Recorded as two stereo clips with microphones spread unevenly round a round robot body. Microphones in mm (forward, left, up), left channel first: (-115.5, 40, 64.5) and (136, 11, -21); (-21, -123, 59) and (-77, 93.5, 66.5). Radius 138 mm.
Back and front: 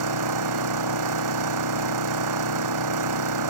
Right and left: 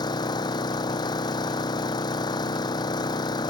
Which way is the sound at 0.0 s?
Straight ahead.